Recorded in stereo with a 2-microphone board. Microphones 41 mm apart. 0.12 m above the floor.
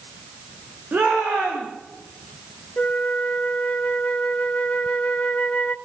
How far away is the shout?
About 8 m.